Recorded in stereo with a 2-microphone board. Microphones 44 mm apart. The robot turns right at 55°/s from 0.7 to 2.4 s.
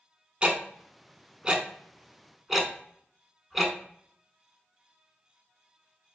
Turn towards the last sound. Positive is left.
turn(degrees=-5)  # may be behind; listen again after turning